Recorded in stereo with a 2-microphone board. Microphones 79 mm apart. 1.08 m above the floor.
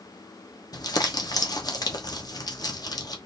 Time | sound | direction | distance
0.7 | crumpling | 55° left (ahead or behind) | 1.1 m